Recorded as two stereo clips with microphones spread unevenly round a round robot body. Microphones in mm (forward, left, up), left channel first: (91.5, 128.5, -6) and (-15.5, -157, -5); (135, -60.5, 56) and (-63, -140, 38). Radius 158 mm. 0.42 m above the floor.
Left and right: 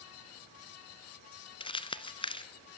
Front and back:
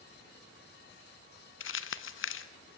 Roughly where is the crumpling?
Ahead.